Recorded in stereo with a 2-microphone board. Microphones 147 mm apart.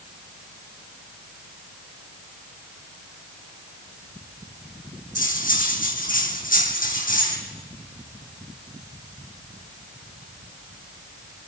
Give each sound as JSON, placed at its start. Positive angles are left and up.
{"t": 5.2, "sound": "cutlery clinking", "side_deg": 60, "distance_m": 4.5}